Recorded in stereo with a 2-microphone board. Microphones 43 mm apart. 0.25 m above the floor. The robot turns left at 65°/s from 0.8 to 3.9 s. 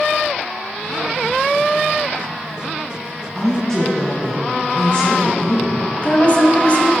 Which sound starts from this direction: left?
A woman speaking, at 6.0 s.